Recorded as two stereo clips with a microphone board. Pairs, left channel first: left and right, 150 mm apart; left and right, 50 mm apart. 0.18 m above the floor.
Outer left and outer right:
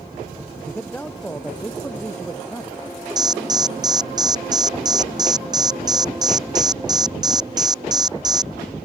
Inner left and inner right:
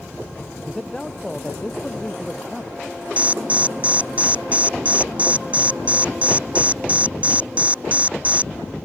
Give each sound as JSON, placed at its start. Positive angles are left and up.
{"t": 0.7, "sound": "a man speaking", "side_deg": 10}
{"t": 3.2, "sound": "an alarm", "side_deg": -25}